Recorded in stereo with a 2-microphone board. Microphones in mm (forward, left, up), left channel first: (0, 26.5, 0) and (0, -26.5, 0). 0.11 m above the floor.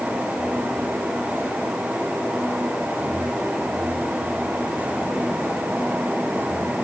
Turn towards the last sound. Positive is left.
No sound to turn to.